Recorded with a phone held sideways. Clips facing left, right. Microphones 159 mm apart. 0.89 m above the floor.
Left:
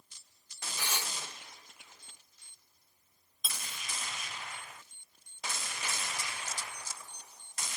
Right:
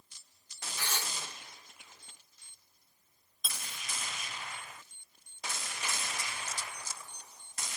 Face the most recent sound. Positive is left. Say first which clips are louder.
# left 1 dB
turn(degrees=5)  # may be behind; listen again after turning